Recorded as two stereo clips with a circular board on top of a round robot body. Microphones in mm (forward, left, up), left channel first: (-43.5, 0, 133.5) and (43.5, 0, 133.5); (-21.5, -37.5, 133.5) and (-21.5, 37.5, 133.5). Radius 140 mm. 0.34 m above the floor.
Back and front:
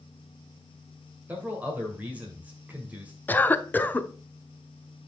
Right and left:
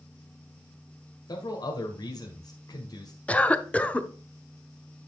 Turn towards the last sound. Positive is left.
turn(degrees=-140)